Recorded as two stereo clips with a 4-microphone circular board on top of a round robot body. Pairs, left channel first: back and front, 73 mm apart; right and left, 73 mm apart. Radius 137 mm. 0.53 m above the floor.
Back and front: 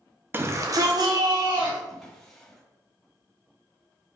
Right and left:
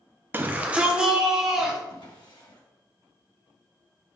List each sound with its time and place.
0.3 s a shout: 45° left, 1.1 m; by 1.8 s 5° left, 3 m
1.9 s a drawer: 95° right, 2 m